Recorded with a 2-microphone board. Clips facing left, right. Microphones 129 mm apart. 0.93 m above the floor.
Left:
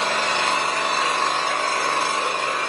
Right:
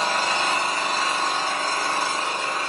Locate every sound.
0.0 s an engine running: 70° left (ahead or behind), 3.5 m